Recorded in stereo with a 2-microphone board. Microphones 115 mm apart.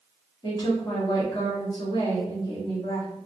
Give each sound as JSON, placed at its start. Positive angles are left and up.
{"t": 0.4, "sound": "a woman speaking", "side_deg": 30, "distance_m": 1.5}